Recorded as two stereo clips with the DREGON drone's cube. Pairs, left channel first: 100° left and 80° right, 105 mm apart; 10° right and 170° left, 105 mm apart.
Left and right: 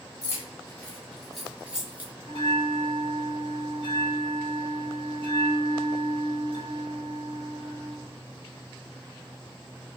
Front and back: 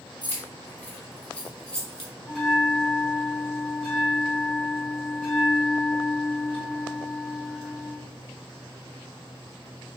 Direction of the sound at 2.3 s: 65° left.